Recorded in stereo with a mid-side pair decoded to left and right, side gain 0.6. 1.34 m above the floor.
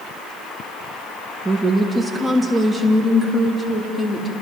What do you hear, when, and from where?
1.4 s a woman speaking: 10° right, 2.5 m; by 4.3 s 15° left, 4 m